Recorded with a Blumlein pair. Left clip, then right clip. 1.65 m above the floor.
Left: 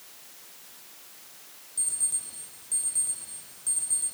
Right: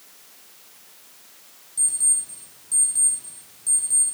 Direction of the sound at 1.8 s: 10° right.